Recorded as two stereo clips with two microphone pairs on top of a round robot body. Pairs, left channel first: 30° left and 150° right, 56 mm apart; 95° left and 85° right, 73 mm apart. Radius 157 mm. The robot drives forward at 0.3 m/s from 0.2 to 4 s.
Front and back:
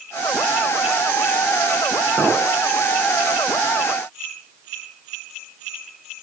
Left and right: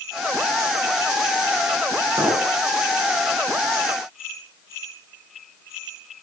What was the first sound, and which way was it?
A clink, 115° right.